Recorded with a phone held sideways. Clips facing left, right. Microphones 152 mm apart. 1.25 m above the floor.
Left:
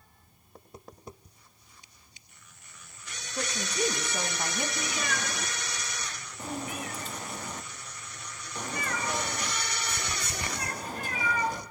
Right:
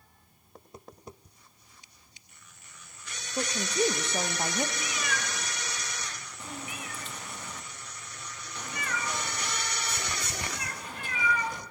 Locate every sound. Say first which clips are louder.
3.4 s a woman speaking: right 3 dB; 25° right (ahead or behind), 1.1 m
4.8 s a cat meowing: left 2 dB; 40° left (ahead or behind), 1.3 m